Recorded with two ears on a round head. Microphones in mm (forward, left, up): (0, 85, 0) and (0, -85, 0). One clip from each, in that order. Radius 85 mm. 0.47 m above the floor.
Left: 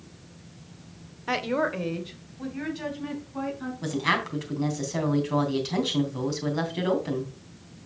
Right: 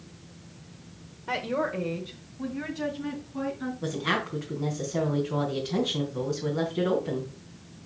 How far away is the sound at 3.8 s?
About 3.5 m.